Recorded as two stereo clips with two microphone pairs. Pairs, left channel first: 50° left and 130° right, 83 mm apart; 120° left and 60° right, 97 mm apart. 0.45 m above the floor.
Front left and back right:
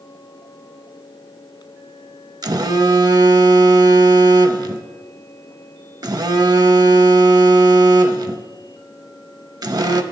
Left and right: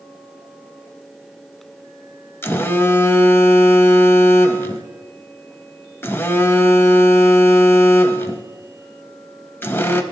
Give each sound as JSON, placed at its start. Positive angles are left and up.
{"t": 2.4, "sound": "a phone buzzing", "azimuth_deg": -170, "distance_m": 0.5}